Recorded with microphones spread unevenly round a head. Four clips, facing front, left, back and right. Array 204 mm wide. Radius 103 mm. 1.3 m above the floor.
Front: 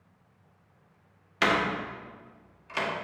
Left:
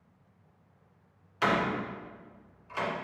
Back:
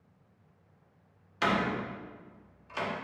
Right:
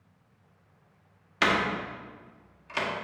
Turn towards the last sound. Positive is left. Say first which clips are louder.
# right 1 dB, front 3 dB
turn(degrees=-40)